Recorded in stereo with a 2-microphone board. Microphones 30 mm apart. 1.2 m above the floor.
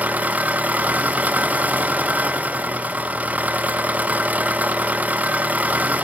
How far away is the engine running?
About 0.8 m.